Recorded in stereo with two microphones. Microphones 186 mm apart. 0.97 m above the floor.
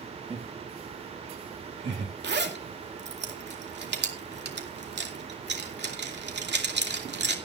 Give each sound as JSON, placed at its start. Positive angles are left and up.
{"t": 0.3, "sound": "laughter", "side_deg": -30, "distance_m": 1.8}
{"t": 2.2, "sound": "a zipper", "side_deg": -70, "distance_m": 2.5}